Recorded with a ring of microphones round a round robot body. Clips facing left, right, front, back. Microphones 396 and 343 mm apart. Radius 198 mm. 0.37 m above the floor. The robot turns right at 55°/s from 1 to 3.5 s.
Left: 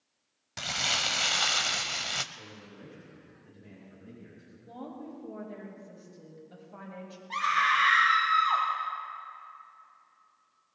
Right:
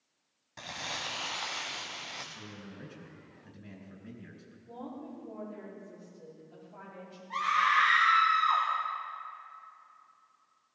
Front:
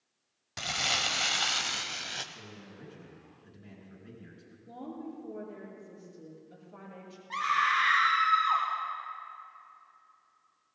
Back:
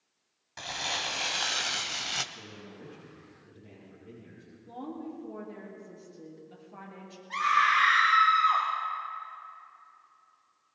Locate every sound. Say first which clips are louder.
0.6 s crumpling: left 4 dB, front 1 dB; 45° left, 0.9 m; by 2.2 s 110° left, 0.9 m
2.3 s a man speaking: right 2 dB, back 2 dB; 95° right, 5 m; by 4.6 s 30° right, 5 m
4.7 s a woman speaking: left 1 dB, back 2 dB; 100° left, 7 m
7.3 s a scream: right 1 dB, back 3 dB; 80° left, 2.5 m